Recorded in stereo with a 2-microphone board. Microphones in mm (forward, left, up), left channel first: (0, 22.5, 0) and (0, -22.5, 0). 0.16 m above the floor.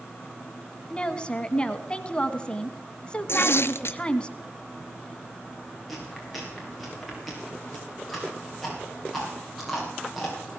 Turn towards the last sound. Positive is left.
turn(degrees=0)  # may be behind; listen again after turning